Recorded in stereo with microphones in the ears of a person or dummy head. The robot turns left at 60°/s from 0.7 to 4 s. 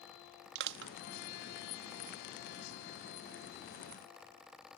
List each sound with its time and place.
0.6 s crushing: 70° right (ahead or behind); by 0.9 s 80° right